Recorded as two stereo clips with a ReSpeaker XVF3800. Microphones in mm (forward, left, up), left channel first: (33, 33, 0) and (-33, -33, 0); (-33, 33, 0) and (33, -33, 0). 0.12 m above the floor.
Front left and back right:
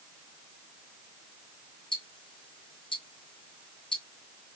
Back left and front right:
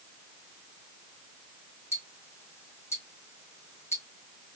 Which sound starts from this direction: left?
Ticking, at 1.9 s.